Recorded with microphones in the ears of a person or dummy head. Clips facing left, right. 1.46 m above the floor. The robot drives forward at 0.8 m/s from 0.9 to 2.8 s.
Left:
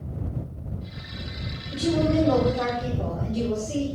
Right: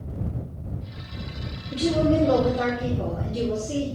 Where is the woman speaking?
30° right (ahead or behind), 3.5 m; by 3.9 s 25° right (ahead or behind), 4.5 m.